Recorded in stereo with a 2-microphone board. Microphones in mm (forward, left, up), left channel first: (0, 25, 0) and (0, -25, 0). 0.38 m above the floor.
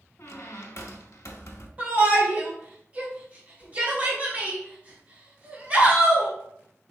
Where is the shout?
30° right (ahead or behind), 1.9 m.